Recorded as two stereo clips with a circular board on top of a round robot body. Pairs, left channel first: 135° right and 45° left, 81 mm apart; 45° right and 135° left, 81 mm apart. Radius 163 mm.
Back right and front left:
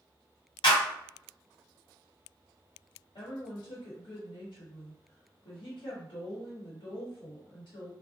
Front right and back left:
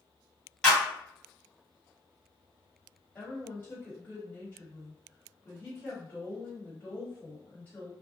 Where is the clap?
125° right, 1.5 m.